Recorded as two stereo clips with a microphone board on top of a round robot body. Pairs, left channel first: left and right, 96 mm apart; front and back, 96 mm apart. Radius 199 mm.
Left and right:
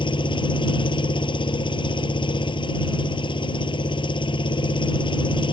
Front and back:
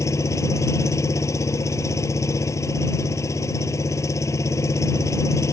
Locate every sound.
0.0 s an engine running: 60° left